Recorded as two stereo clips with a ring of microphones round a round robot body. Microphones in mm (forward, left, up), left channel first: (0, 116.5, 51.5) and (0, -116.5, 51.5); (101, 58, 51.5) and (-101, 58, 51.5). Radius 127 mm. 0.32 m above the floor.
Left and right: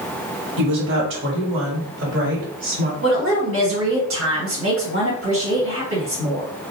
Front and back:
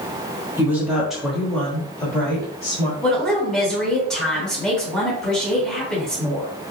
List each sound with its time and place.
0.6 s a woman speaking: 105° right, 1.9 m; by 2.9 s 65° right, 2.5 m
3.0 s a woman speaking: 85° right, 2.5 m